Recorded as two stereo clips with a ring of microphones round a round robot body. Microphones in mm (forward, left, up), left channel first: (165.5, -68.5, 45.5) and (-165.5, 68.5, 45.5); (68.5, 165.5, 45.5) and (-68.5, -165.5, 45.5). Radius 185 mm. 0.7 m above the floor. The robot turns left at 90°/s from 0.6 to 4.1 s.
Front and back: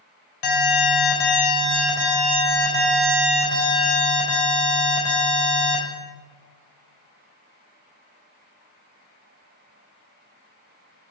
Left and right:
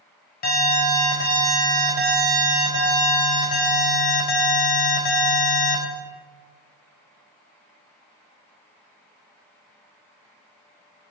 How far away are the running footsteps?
I don't hear running footsteps.